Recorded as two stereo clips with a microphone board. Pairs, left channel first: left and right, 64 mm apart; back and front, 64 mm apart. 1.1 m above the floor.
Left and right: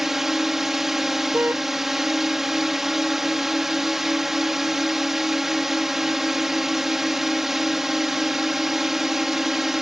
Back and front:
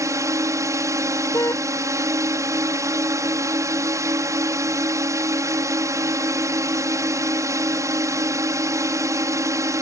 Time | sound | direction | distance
0.0 | a drone | 5° right | ?
1.3 | a car horn | 150° right | ?